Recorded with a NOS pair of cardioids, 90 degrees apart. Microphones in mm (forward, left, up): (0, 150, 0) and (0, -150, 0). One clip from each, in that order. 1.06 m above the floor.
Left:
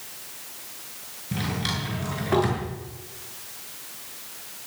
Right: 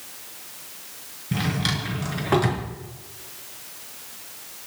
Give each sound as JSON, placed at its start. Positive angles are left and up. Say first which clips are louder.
{"t": 1.3, "sound": "a drawer", "louder": "right 3 dB", "azimuth_deg": -30, "distance_m": 6.0}